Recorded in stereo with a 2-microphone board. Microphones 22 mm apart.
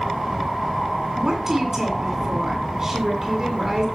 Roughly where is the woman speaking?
Right.